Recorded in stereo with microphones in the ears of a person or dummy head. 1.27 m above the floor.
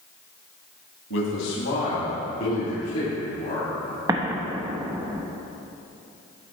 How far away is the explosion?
About 1.0 m.